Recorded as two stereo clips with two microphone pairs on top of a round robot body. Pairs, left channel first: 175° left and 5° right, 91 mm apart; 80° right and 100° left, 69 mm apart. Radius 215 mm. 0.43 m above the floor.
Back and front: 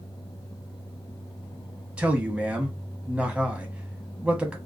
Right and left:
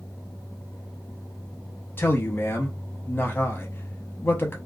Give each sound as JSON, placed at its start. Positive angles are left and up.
{"t": 2.0, "sound": "a man speaking", "azimuth_deg": -70, "distance_m": 1.0}